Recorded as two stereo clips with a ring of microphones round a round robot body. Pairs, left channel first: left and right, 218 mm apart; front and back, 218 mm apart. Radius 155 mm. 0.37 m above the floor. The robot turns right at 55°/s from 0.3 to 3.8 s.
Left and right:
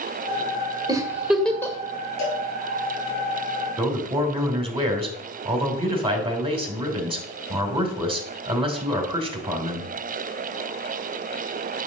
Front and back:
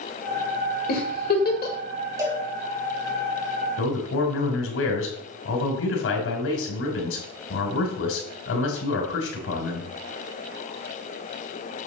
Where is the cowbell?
105° left, 3 m; by 2.5 s 120° left, 3 m.